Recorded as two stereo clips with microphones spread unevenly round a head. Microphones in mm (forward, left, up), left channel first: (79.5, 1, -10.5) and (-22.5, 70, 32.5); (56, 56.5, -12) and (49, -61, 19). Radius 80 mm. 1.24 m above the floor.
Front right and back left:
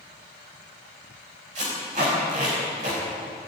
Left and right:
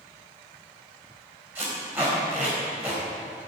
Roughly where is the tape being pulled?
Behind.